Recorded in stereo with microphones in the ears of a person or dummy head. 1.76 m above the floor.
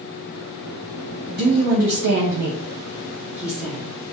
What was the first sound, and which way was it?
A woman speaking, 55° right (ahead or behind).